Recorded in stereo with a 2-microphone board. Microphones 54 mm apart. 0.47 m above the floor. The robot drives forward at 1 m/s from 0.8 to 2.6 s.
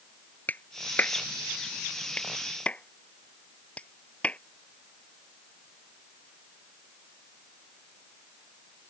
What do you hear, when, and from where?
0.5 s a clap: 35° left (ahead or behind); by 4.4 s 25° left (ahead or behind)